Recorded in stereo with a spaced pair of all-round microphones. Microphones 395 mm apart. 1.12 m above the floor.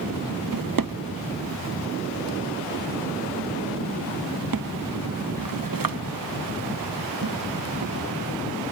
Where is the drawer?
55° right (ahead or behind), 0.7 m.